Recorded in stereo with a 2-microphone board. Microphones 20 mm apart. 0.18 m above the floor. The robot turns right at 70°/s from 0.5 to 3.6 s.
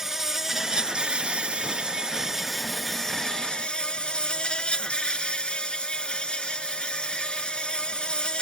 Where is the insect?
155° right; by 8.4 s 65° left.